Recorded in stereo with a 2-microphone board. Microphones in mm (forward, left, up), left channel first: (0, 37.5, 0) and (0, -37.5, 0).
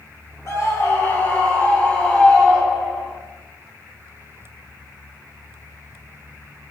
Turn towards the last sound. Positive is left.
turn(degrees=10)  # may be behind; listen again after turning